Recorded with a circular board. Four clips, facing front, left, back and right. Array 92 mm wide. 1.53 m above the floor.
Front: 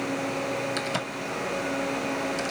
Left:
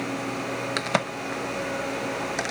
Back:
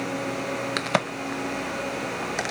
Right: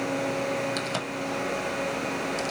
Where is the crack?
140° left, 0.7 m.